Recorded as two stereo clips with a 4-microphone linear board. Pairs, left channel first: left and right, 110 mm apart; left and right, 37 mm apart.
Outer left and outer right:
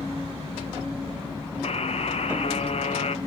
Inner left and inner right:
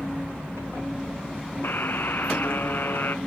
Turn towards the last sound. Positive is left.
turn(degrees=75)  # may be behind; listen again after turning